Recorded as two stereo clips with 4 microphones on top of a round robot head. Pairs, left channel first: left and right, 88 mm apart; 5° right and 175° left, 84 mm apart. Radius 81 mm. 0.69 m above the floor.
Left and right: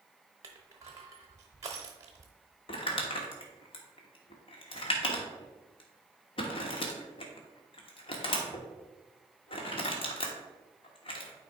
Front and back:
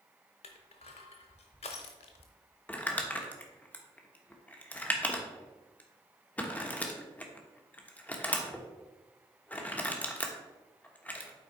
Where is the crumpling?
70° left, 1.3 m.